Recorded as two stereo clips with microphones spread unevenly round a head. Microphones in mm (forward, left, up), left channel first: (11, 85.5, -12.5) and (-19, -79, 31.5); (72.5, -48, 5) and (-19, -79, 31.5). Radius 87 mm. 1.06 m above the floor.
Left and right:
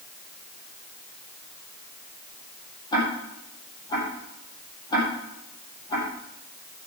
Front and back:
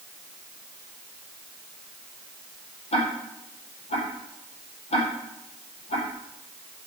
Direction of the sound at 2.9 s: 10° left.